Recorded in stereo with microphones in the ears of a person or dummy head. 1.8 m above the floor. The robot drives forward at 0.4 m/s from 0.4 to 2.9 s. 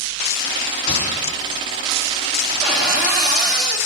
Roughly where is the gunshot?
Left.